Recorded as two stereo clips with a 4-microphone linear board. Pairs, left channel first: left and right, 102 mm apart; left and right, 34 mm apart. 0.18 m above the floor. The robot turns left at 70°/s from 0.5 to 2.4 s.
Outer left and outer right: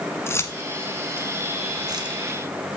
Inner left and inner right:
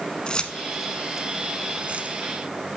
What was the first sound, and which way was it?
Keys jangling, 25° left (ahead or behind).